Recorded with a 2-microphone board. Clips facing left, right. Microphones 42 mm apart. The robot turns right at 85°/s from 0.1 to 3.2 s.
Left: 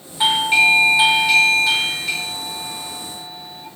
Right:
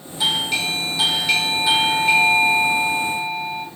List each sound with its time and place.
0.2 s a doorbell: 80° left, 1.6 m; by 3.7 s 25° right, 1.6 m